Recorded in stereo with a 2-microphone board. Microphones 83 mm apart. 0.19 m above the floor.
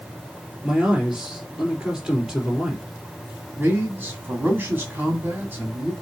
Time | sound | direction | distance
0.6 | a man speaking | 5° right (ahead or behind) | 3.5 m
3.6 | a man speaking | 25° right (ahead or behind) | 1.8 m